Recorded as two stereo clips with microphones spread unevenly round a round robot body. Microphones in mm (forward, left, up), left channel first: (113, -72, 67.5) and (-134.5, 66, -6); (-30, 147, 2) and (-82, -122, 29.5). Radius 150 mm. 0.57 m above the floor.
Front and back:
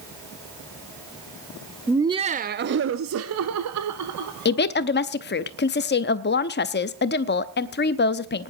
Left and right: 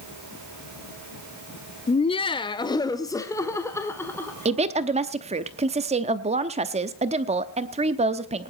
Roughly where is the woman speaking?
Ahead right.